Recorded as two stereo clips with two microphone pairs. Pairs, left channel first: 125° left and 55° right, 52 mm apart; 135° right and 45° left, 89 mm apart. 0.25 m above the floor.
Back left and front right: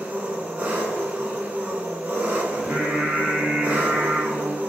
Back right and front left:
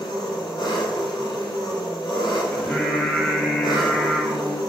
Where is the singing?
85° right, 0.7 m.